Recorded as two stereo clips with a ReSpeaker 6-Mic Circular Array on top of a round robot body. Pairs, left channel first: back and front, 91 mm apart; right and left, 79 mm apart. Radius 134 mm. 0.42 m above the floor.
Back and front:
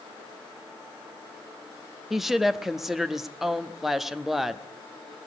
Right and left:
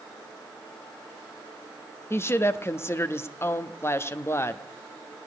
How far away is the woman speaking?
About 0.8 m.